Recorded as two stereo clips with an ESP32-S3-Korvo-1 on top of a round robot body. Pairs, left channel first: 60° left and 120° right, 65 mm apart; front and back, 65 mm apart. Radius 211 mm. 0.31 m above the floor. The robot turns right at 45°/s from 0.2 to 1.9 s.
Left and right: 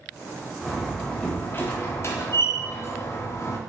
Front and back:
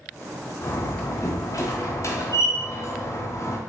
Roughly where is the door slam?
Ahead right.